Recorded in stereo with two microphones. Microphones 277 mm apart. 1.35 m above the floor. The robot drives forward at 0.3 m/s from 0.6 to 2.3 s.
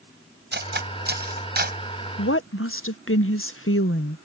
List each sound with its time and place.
0.5 s cutlery clinking: 40° right (ahead or behind)
2.2 s a woman speaking: 55° left (ahead or behind)